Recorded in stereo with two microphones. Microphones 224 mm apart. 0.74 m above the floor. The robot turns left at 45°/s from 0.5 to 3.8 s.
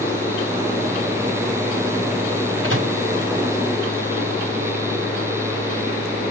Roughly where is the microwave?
Right.